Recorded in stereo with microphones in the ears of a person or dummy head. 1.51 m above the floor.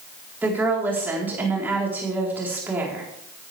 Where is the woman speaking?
5° right (ahead or behind), 4 m.